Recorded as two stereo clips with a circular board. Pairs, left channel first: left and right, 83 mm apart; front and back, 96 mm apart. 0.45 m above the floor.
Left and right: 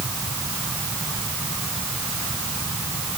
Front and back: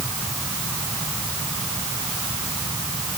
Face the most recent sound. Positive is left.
No sound to turn to.